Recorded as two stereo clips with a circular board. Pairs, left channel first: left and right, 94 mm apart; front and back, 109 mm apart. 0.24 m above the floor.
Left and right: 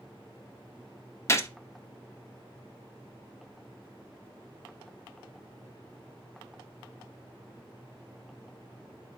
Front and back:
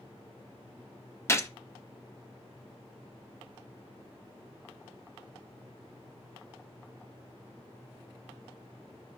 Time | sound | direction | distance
1.3 | a gunshot | 50° left | 0.6 m